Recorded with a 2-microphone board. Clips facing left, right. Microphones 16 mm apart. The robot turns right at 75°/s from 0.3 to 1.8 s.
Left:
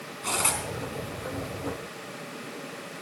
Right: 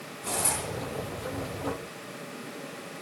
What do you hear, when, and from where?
0.2 s cutlery clinking: 35° left (ahead or behind), 3.5 m; by 0.6 s 60° left (ahead or behind), 3.5 m